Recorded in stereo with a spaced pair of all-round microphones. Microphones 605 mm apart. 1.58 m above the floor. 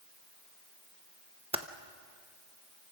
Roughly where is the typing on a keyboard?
Centre.